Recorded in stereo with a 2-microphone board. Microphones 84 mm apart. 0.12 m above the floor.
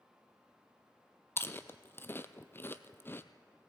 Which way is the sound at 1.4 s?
30° left (ahead or behind).